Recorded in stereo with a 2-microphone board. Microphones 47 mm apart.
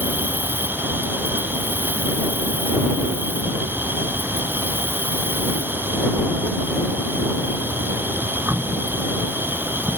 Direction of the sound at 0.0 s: 50° right (ahead or behind).